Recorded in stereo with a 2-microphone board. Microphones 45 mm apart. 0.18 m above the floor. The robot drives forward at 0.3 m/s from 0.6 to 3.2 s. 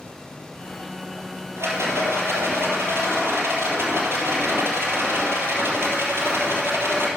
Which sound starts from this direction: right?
A rattle, at 1.6 s.